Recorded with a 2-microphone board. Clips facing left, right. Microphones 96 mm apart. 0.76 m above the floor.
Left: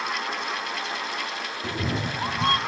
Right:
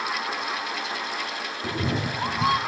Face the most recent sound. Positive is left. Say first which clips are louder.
# right 2 dB
turn(degrees=-5)  # may be behind; listen again after turning